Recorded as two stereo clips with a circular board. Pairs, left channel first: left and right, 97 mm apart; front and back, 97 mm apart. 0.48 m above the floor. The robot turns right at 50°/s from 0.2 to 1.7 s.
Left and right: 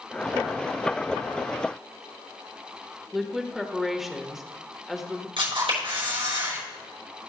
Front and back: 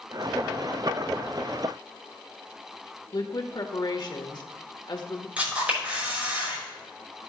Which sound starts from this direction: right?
A camera shutter, at 5.4 s.